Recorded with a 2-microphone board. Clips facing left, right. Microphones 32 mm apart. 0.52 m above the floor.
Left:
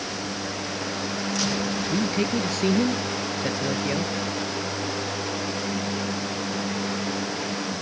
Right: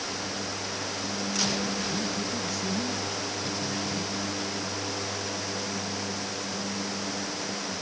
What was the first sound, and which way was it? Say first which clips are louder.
A man speaking: left 6 dB; 65° left (ahead or behind).